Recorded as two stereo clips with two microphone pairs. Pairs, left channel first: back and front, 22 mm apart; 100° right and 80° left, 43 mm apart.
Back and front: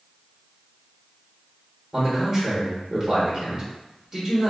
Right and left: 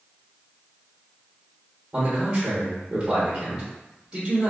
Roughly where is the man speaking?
Ahead left.